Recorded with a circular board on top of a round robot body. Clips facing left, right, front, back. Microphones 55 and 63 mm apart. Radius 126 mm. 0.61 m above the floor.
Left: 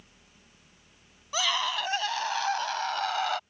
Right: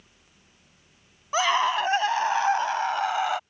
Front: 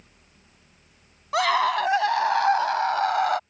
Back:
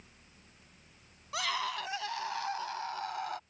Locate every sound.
1.3 s a scream: 35° right; by 3.4 s 15° right